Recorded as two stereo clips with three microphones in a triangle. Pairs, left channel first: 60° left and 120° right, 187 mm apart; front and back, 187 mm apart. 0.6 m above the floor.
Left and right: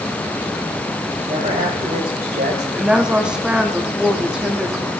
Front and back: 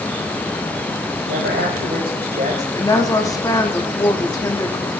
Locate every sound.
1.3 s a woman speaking: 170° right, 3.5 m; by 2.6 s 140° right, 2.5 m
2.8 s a woman speaking: 45° right, 0.8 m